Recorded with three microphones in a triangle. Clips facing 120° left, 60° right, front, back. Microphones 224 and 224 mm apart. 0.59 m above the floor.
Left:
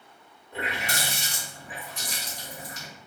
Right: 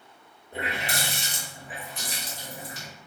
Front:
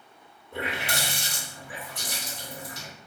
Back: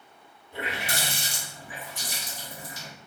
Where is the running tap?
10° right, 1.2 m.